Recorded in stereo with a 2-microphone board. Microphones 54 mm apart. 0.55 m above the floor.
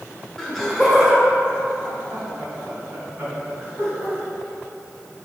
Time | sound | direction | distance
0.4 | laughter | 10° left (ahead or behind) | 1.9 m